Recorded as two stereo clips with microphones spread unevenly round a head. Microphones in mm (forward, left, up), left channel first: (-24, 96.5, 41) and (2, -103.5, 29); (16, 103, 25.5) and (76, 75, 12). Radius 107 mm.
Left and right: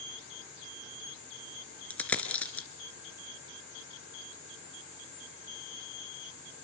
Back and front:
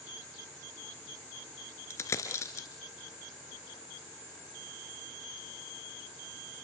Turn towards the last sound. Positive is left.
turn(degrees=175)